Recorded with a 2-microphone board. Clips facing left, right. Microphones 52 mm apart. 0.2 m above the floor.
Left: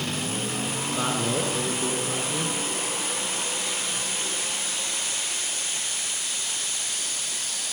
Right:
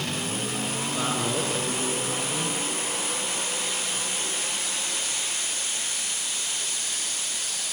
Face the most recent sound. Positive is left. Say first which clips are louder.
# left 1 dB
turn(degrees=10)  # may be behind; listen again after turning